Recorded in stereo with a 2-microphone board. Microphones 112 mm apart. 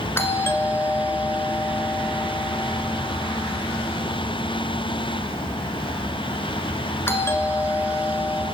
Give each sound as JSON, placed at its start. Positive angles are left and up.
{"t": 0.2, "sound": "a doorbell", "side_deg": 20, "distance_m": 1.7}